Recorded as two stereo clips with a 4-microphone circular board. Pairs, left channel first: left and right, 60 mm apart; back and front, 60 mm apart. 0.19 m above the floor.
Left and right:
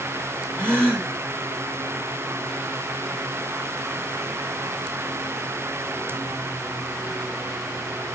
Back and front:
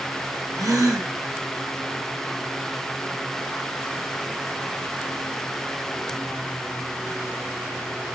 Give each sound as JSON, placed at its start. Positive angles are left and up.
{"t": 0.5, "sound": "a gasp", "azimuth_deg": 20, "distance_m": 4.0}